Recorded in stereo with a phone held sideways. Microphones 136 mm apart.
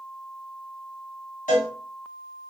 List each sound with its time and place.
1.5 s a cowbell: 70° left (ahead or behind), 1.4 m